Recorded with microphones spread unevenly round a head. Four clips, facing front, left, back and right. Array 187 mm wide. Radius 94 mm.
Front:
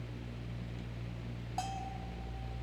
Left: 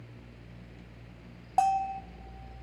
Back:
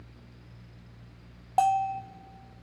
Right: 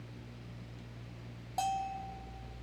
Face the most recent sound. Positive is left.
turn(degrees=155)